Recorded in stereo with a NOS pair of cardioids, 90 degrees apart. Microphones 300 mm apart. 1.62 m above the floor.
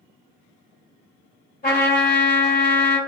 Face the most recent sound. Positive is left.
turn(degrees=30)